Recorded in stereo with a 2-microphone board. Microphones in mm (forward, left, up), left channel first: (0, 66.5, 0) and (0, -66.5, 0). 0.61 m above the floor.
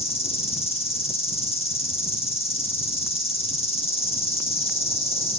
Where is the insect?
50° left (ahead or behind), 2 m.